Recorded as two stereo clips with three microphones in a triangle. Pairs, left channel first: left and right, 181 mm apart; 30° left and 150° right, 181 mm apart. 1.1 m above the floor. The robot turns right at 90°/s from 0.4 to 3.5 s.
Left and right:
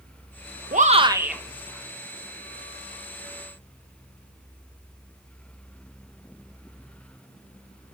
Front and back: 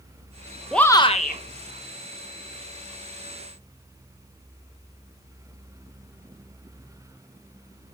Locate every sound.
0.7 s a shout: 60° right, 1.2 m; by 1.4 s straight ahead, 1.2 m